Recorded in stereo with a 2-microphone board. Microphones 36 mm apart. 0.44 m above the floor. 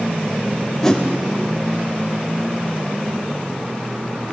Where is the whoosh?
15° left (ahead or behind), 1.3 m.